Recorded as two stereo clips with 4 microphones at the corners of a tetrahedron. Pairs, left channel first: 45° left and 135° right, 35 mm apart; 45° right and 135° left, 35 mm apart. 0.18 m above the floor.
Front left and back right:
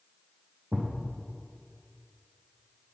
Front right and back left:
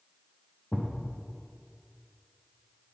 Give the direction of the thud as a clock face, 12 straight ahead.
4 o'clock.